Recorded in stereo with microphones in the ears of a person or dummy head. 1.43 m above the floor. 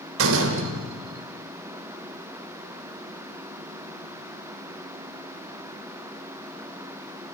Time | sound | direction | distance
0.2 | a door slam | 75° right (ahead or behind) | 3.5 m